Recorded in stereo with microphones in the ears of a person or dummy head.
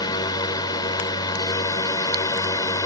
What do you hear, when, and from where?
0.0 s a drone: 25° left (ahead or behind); by 2.9 s 20° left (ahead or behind)